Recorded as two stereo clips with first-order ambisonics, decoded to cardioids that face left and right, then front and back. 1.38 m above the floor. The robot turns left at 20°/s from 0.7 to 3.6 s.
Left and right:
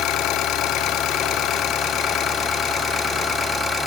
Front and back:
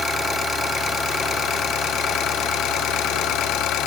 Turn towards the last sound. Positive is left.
turn(degrees=0)